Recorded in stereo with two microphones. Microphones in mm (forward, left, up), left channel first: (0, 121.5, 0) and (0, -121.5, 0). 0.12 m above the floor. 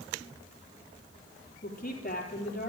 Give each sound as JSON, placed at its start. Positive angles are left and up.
{"t": 1.6, "sound": "a woman speaking", "side_deg": 35, "distance_m": 3.5}